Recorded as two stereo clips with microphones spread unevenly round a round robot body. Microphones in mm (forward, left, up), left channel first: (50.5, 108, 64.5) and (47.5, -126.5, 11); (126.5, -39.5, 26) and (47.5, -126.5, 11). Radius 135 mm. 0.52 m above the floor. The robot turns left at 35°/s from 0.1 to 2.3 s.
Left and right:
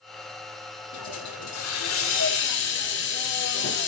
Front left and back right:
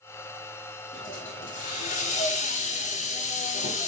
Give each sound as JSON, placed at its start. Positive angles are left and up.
{"t": 0.9, "sound": "a hiss", "azimuth_deg": 100, "distance_m": 5.0}